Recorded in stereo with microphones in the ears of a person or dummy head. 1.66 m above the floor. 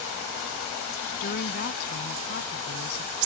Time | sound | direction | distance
1.2 | a woman speaking | 55° left (ahead or behind) | ?